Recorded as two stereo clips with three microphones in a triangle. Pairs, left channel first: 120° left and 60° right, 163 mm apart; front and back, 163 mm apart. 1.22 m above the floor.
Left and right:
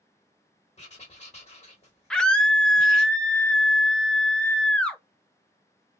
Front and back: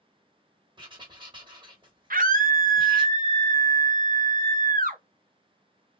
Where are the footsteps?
No footsteps in this recording.